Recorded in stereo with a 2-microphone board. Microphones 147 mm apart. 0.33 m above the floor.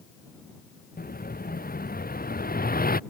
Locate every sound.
1.0 s an explosion: 85° left